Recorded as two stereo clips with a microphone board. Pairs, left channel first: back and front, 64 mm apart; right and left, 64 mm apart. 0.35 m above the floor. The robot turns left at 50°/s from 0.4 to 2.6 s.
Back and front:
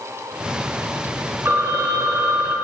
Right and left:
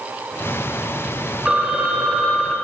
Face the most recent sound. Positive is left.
turn(degrees=-35)